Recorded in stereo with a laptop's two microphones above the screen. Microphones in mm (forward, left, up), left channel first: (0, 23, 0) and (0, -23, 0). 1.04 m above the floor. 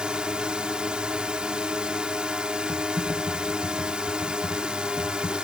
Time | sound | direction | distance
0.0 | a drone | 20° right (ahead or behind) | ?
2.7 | typing on a keyboard | 45° right (ahead or behind) | ?